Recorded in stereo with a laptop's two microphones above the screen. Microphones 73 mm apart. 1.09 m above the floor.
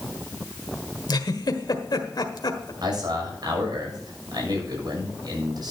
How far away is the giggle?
About 1.6 m.